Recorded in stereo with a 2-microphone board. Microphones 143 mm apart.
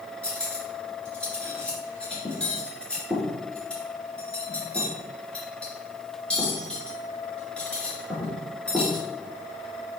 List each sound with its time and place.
0.2 s cutlery clinking: 5° left (ahead or behind), 3 m